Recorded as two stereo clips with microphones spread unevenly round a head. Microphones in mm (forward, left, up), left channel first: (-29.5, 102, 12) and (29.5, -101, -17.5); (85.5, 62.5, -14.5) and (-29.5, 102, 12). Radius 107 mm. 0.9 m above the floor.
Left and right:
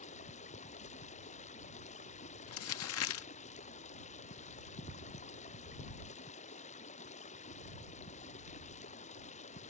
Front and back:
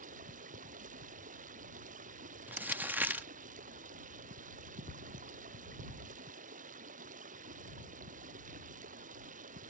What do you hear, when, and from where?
0.0 s running water: 165° left
2.5 s crumpling: 85° left